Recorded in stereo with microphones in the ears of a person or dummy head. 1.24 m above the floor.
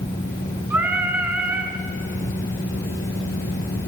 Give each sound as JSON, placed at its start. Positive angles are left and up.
{"t": 0.7, "sound": "singing", "side_deg": -10, "distance_m": 3.0}